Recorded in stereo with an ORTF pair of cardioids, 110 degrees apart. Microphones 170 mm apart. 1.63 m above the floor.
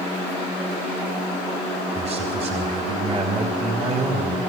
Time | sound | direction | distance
1.9 | a man speaking | 40° right | 3 m